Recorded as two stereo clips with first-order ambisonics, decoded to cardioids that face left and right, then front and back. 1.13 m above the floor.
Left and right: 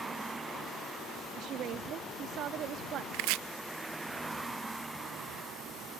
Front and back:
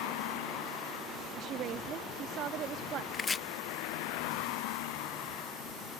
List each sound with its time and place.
0.0 s a vehicle: 10° right
1.4 s a woman speaking: 135° right
3.1 s chopping: 75° right